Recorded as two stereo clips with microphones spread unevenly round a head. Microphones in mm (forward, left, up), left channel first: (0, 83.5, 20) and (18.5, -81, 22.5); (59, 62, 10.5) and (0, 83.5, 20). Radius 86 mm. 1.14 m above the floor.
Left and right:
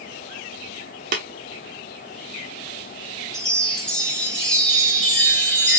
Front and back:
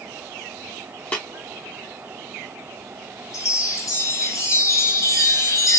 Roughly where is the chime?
Ahead.